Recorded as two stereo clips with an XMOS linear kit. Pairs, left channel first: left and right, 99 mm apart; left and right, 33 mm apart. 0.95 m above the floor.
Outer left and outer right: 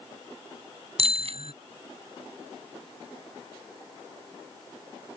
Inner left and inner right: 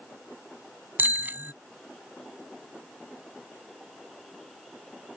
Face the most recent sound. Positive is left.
turn(degrees=-90)